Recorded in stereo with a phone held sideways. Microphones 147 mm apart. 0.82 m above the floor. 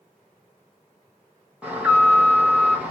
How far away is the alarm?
About 0.8 m.